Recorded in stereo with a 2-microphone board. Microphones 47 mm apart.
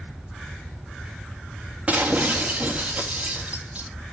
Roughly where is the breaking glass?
Right.